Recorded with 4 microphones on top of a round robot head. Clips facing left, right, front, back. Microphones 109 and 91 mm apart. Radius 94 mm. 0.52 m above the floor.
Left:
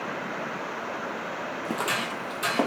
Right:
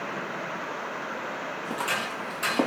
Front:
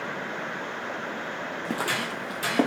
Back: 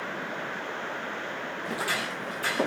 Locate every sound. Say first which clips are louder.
1.6 s footsteps: left 2 dB, front 2 dB; 40° left, 0.7 m; by 2.7 s 5° right, 0.9 m